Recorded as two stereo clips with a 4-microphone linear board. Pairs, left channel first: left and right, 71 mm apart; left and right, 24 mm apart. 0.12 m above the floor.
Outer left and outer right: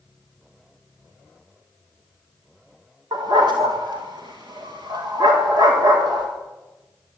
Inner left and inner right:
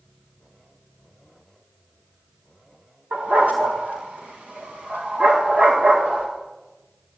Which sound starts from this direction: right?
A dog barking, at 3.1 s.